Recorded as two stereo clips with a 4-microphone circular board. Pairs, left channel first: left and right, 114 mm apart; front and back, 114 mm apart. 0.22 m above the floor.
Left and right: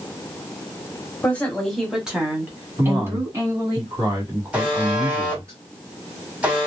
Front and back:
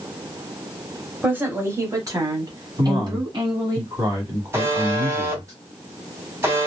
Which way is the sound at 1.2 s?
135° left.